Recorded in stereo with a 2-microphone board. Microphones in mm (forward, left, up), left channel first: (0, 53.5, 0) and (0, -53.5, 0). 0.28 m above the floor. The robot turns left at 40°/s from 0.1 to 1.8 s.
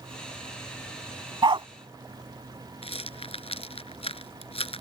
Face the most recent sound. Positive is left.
turn(degrees=80)